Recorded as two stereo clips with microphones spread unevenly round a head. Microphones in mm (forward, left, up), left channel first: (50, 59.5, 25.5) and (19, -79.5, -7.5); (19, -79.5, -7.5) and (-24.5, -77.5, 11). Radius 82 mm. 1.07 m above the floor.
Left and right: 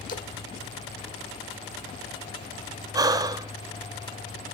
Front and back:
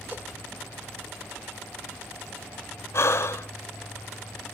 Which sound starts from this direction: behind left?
A splash, at 0.1 s.